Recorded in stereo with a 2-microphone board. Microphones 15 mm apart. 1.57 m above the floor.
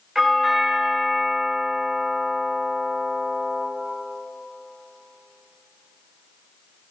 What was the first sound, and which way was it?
A doorbell, 25° right (ahead or behind).